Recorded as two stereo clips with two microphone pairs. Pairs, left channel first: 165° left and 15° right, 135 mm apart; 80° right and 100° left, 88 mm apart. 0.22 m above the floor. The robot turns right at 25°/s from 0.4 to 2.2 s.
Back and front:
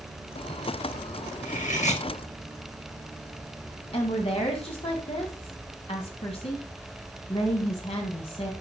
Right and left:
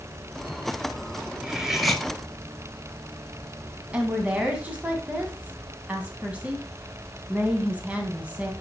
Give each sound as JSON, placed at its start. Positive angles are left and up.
{"t": 1.4, "sound": "cutlery clinking", "azimuth_deg": 175, "distance_m": 1.9}
{"t": 3.9, "sound": "a woman speaking", "azimuth_deg": 165, "distance_m": 2.0}